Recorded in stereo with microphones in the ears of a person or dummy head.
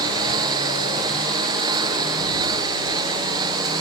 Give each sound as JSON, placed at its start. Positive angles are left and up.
{"t": 0.0, "sound": "a lawn mower", "side_deg": -20}